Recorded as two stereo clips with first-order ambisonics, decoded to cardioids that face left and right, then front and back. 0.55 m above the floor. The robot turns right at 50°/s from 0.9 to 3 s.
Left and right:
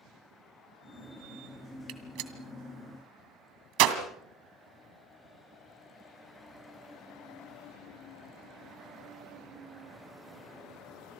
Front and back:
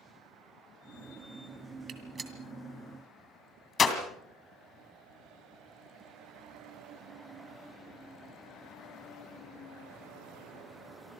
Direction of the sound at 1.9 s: 125° right.